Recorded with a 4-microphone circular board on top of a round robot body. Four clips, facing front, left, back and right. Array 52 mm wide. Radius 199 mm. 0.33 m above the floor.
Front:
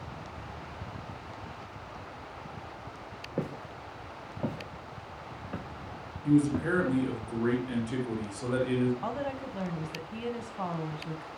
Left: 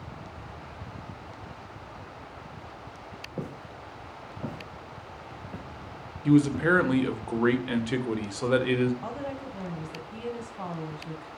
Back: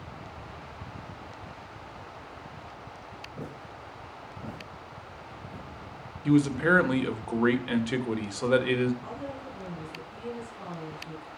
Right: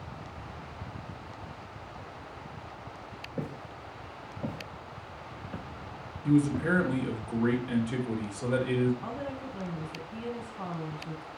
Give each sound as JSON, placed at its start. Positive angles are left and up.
{"t": 3.4, "sound": "footsteps", "azimuth_deg": 5, "distance_m": 4.5}
{"t": 6.2, "sound": "a man speaking", "azimuth_deg": 135, "distance_m": 2.0}
{"t": 9.0, "sound": "a woman speaking", "azimuth_deg": 20, "distance_m": 3.5}